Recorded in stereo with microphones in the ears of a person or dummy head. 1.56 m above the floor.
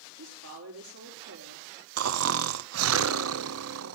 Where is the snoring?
80° right, 0.6 m.